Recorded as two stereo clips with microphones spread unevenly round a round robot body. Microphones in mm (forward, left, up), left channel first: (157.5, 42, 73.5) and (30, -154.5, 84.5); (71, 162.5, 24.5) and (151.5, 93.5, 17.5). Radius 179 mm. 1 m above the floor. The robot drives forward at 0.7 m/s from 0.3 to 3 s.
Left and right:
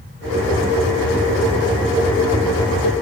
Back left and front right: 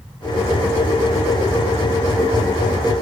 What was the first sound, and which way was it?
Only background noise.